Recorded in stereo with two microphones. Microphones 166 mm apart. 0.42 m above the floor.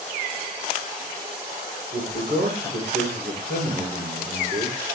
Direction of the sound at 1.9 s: 75° right (ahead or behind).